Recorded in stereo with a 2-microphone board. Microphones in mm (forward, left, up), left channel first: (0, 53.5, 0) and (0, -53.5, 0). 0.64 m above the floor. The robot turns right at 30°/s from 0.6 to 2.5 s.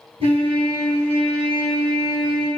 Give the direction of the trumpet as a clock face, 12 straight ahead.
3 o'clock.